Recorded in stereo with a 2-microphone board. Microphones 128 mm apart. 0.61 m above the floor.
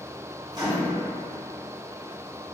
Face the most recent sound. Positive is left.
turn(degrees=-30)  # may be behind; listen again after turning